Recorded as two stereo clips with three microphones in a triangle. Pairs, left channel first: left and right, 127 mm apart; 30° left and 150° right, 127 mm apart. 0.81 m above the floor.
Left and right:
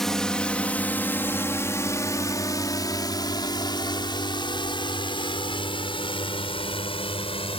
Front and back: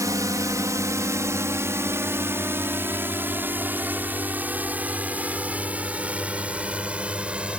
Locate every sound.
0.0 s a drone: 175° left; by 7.6 s 130° left